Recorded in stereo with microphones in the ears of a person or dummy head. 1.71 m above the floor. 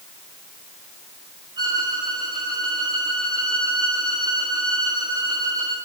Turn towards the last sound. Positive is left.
turn(degrees=-25)  # may be behind; listen again after turning